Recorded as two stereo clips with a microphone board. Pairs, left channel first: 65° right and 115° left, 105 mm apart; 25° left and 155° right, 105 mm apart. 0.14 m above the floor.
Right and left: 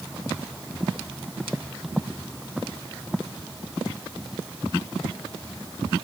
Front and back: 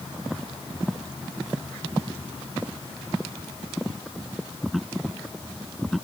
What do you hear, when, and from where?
Only background noise.